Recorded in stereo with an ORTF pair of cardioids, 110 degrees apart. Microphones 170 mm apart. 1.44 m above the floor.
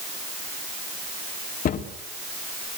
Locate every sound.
1.6 s a cupboard door: 55° left, 3 m